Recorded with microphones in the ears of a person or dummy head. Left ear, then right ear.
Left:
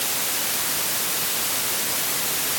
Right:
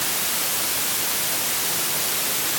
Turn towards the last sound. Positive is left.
No sound to turn to.